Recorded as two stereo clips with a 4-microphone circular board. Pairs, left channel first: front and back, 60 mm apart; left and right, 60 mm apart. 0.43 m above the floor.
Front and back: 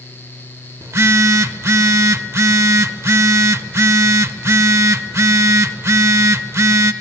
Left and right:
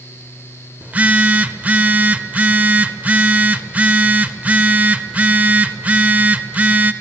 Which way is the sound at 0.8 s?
150° right.